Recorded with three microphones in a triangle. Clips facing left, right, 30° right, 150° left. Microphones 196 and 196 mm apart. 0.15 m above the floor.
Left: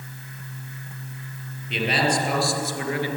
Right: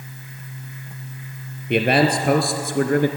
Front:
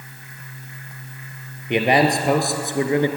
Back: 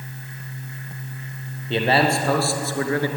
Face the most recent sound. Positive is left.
turn(degrees=-95)